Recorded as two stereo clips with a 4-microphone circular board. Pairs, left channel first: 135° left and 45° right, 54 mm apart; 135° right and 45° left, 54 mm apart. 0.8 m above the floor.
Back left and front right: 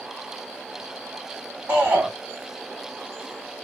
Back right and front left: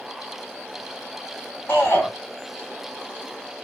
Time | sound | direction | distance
1.7 | a shout | 95° right | 1.5 m